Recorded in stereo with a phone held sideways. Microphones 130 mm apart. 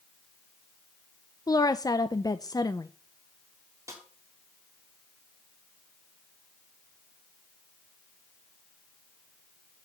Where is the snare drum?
25° right (ahead or behind), 3 m.